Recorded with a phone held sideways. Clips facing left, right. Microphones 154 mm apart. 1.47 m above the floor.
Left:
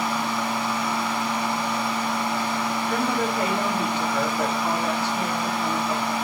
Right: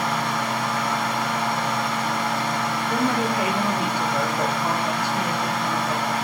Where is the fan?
85° right, 7 m.